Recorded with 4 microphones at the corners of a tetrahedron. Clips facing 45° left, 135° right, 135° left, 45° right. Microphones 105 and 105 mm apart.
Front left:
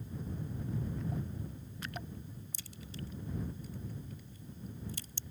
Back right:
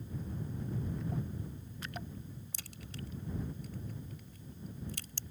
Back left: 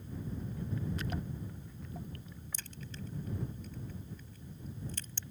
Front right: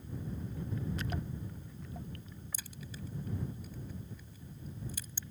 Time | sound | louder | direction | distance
2.5 | a crack | front left 2 dB, back left 1 dB | 125° right | ?